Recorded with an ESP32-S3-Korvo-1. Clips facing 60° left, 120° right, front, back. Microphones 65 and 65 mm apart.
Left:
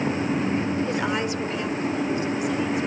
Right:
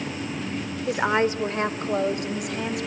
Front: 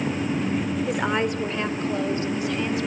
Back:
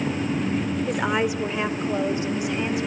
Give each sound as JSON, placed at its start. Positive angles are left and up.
{"t": 0.9, "sound": "a woman speaking", "azimuth_deg": -80, "distance_m": 0.8}